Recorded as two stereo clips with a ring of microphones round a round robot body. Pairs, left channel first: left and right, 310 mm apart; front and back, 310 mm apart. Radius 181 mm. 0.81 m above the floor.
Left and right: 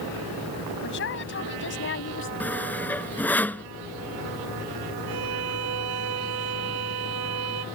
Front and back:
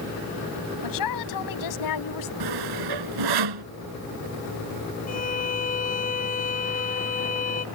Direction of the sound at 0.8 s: 30° left.